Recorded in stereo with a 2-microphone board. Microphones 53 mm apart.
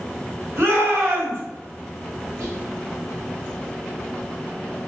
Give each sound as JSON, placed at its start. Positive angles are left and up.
{"t": 0.6, "sound": "a shout", "side_deg": -55, "distance_m": 1.2}
{"t": 2.4, "sound": "whispering", "side_deg": -65, "distance_m": 1.6}